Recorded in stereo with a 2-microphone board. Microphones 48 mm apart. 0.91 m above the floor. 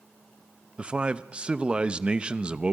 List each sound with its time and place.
0.8 s a man speaking: 20° right (ahead or behind), 0.9 m